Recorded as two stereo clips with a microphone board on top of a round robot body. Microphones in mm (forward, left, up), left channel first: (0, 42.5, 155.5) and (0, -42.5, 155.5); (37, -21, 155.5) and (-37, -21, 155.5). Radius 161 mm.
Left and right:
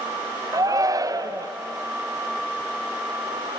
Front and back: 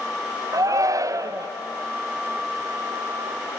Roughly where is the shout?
Behind right.